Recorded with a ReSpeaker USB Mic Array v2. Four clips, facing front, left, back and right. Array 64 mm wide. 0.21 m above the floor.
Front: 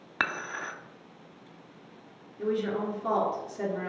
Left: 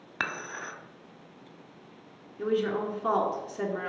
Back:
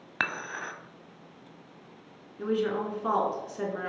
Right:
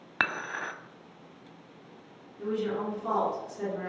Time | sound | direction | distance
0.2 | dishes clattering | 90° right | 0.7 m
2.4 | a woman speaking | 125° left | 3 m